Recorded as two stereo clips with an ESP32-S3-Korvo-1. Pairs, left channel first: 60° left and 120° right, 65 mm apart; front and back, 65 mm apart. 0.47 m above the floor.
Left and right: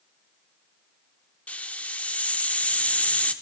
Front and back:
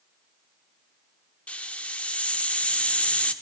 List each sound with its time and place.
1.5 s a hiss: 35° left, 0.9 m